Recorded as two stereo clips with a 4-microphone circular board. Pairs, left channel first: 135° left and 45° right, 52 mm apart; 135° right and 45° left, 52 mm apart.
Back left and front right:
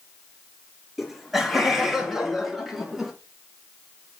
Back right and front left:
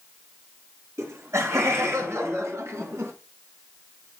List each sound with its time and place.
1.0 s laughter: 45° left, 5 m; by 3.1 s 40° left, 3.5 m